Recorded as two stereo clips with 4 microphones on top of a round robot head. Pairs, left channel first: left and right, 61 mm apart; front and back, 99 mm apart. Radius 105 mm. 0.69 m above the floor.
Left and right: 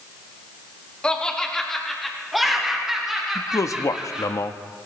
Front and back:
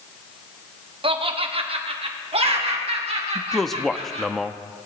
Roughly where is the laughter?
Behind.